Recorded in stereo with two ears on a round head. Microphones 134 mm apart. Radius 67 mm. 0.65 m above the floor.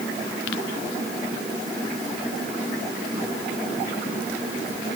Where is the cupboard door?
No cupboard door in this recording.